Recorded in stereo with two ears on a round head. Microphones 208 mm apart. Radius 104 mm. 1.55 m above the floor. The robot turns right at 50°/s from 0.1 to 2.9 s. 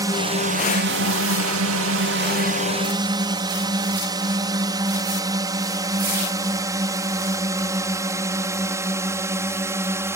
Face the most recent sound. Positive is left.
turn(degrees=-10)  # may be behind; listen again after turning